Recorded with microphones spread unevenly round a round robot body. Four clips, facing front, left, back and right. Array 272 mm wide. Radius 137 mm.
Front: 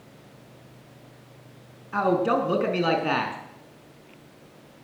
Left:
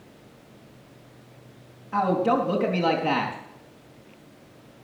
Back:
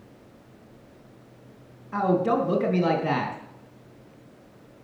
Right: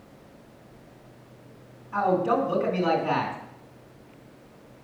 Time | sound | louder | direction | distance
1.9 | a man speaking | left 1 dB, even | 145° left | 4 m